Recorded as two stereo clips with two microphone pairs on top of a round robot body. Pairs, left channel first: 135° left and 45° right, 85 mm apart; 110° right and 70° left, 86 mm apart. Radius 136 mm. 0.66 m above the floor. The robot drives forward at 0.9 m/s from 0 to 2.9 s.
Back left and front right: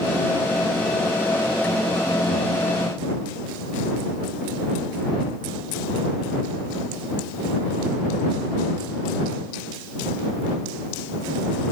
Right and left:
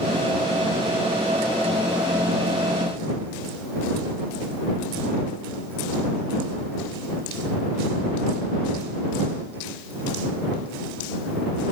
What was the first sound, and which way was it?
Only background noise.